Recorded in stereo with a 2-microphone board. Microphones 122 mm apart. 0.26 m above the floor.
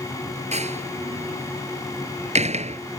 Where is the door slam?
65° right (ahead or behind).